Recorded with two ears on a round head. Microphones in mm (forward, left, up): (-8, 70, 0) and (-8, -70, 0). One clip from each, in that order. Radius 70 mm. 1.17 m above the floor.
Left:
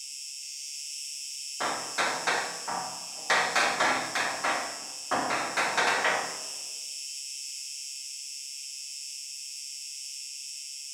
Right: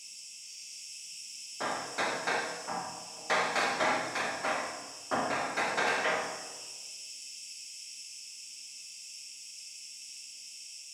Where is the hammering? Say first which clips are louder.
Left 4 dB; 40° left (ahead or behind), 0.7 m.